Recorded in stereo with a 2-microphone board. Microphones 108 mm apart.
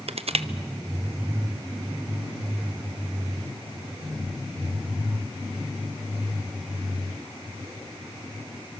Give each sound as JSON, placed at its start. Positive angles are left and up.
{"t": 0.1, "sound": "crushing", "side_deg": -70, "distance_m": 0.8}